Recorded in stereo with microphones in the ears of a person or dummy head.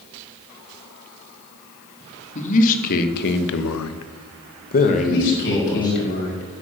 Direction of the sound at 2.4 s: 40° left (ahead or behind).